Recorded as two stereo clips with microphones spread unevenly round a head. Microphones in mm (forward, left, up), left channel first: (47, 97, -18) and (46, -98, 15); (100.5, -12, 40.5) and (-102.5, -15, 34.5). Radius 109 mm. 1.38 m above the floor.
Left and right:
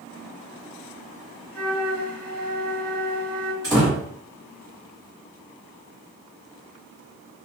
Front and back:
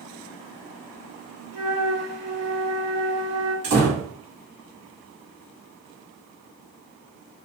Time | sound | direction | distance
1.5 | a flute | 175° right | 1.6 m
3.6 | a door slam | 160° right | 1.5 m